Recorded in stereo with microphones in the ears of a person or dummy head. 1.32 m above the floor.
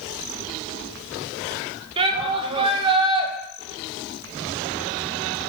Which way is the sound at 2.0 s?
30° right (ahead or behind).